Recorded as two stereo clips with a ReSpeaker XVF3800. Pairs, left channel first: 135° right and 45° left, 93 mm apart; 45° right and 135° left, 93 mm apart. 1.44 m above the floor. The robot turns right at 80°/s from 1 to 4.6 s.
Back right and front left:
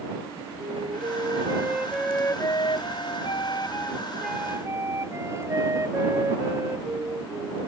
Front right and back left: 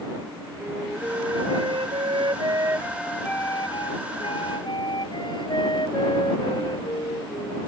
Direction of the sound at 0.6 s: 60° left.